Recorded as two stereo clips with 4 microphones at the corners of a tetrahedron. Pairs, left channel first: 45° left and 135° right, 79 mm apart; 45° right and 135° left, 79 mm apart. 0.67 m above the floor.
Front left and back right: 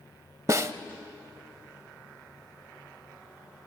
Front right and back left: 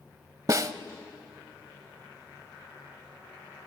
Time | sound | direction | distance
0.5 | a snare drum | straight behind | 0.8 m